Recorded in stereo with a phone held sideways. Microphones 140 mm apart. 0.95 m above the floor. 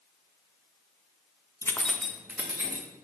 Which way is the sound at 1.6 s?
20° left (ahead or behind).